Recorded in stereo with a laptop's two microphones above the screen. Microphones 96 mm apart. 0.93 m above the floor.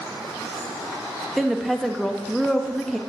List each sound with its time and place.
1.4 s a woman speaking: centre (ahead or behind), 0.9 m